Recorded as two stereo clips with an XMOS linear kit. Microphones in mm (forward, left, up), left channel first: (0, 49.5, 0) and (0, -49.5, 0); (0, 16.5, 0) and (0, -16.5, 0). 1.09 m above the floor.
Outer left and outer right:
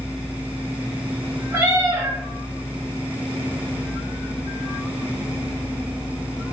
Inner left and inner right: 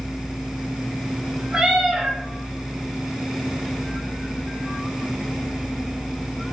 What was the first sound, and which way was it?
A cat meowing, 30° right (ahead or behind).